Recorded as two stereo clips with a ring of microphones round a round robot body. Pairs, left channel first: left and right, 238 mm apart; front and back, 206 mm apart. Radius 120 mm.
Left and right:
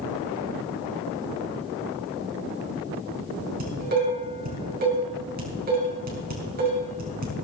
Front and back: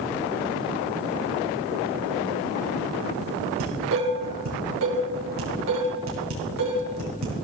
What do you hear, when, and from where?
3.6 s dishes clattering: 145° right, 4 m